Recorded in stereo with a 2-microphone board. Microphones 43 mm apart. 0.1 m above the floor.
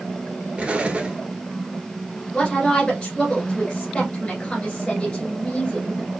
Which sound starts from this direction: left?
A woman speaking, at 2.3 s.